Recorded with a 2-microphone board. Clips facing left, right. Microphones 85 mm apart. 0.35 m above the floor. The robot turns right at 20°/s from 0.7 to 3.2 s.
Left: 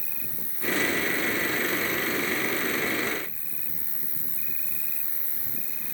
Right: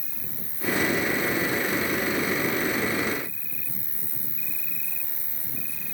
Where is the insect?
105° left; by 6.0 s 155° left.